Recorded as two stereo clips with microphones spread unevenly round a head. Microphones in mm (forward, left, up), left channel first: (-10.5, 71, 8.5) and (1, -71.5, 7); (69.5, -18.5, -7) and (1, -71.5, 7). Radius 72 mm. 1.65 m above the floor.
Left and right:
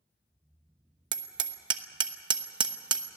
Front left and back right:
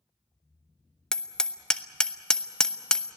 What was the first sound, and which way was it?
Hammering, 55° right.